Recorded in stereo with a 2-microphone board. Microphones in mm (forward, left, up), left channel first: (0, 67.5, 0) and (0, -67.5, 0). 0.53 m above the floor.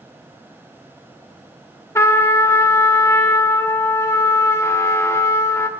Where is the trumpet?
20° left (ahead or behind), 0.7 m.